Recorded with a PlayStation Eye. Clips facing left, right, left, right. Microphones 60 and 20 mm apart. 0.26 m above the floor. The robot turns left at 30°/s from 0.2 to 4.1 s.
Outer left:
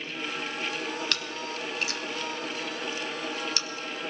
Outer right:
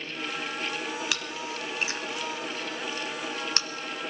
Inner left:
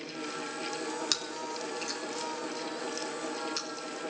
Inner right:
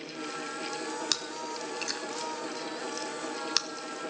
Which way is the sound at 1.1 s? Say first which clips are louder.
Even, even; 5° right (ahead or behind).